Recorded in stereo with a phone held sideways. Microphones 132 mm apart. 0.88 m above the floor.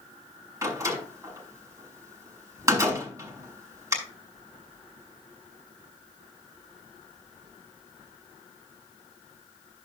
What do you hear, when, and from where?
0.6 s a door slam: 25° right (ahead or behind), 5 m